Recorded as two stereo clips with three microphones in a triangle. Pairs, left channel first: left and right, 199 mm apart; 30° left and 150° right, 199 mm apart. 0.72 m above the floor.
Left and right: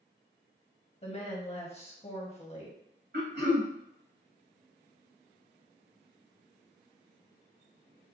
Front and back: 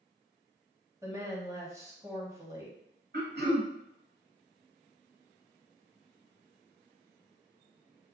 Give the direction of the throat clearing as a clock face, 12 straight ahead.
4 o'clock.